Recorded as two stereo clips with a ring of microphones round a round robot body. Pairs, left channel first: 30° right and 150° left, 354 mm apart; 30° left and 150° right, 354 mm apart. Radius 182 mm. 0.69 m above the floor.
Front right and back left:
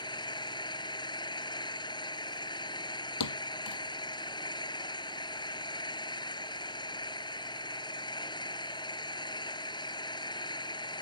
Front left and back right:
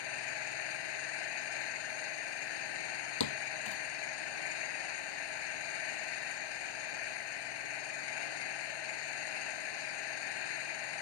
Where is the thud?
5° left.